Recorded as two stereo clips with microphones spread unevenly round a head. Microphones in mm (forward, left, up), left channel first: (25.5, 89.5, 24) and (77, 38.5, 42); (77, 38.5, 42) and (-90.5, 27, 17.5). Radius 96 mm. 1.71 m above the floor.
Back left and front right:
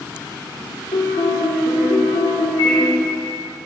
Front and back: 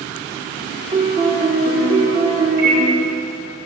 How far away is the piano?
About 2 m.